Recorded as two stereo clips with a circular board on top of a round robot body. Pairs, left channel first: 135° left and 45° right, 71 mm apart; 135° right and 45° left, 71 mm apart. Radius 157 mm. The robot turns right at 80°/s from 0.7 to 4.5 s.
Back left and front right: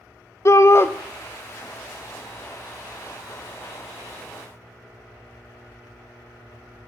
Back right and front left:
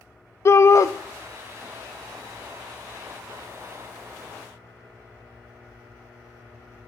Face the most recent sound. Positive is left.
turn(degrees=120)